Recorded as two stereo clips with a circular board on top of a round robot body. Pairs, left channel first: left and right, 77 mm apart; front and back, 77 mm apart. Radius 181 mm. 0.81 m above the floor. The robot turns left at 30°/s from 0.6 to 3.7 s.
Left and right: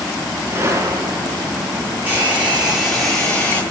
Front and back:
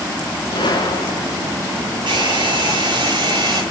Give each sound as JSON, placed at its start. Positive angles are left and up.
{"t": 0.5, "sound": "a gunshot", "azimuth_deg": -30, "distance_m": 2.5}
{"t": 2.1, "sound": "a hair dryer", "azimuth_deg": -155, "distance_m": 9.0}